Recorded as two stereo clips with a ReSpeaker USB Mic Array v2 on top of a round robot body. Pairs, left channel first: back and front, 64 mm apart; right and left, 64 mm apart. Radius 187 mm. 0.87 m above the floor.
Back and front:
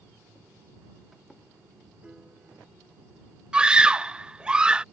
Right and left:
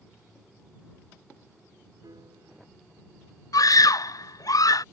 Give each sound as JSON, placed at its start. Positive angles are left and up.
{"t": 2.0, "sound": "a piano", "azimuth_deg": 80}
{"t": 3.5, "sound": "a scream", "azimuth_deg": -75}